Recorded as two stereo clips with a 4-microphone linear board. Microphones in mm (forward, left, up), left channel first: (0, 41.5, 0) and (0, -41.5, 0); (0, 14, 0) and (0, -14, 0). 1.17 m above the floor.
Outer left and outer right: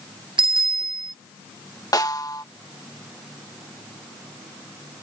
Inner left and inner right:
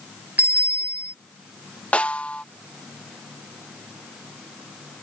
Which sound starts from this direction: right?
A bicycle bell, at 0.4 s.